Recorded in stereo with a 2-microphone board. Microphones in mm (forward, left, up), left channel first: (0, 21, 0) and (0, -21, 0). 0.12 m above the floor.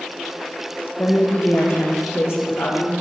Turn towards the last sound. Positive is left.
turn(degrees=75)  # may be behind; listen again after turning